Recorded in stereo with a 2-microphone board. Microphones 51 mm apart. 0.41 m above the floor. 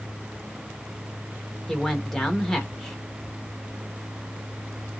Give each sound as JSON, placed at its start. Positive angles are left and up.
{"t": 1.7, "sound": "a man speaking", "side_deg": 5, "distance_m": 1.1}